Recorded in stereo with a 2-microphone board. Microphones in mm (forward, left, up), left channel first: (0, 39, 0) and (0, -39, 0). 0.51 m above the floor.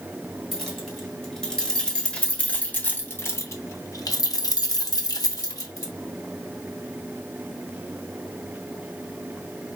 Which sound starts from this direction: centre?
Keys jangling, at 0.5 s.